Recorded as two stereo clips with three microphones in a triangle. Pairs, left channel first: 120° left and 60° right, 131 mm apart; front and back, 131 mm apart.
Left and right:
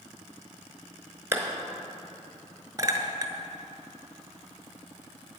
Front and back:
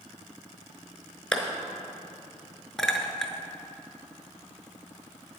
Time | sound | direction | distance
1.3 | a clap | 70° right | 1.1 m
2.8 | a clink | 85° right | 0.8 m